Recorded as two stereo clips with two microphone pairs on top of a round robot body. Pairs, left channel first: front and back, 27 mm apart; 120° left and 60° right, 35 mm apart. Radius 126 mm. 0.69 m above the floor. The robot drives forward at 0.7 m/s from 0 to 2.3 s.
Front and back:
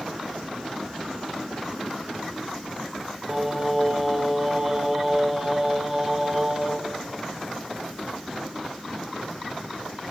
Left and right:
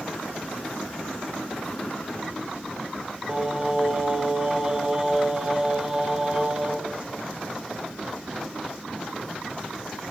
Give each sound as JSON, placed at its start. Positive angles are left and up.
{"t": 3.3, "sound": "singing", "azimuth_deg": -125, "distance_m": 1.1}